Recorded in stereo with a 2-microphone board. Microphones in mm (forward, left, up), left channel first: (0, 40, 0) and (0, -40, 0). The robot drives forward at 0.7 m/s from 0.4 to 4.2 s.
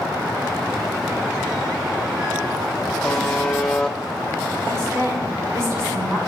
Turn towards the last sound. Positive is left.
turn(degrees=-35)  # may be behind; listen again after turning